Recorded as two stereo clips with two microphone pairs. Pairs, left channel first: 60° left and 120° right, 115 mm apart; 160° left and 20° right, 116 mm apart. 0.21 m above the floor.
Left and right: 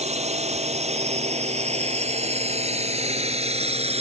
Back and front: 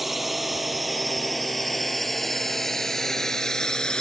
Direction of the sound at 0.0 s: 110° right.